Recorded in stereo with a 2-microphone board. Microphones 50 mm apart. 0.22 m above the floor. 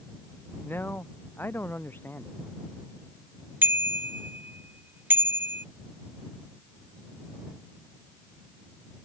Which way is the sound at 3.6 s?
40° right (ahead or behind).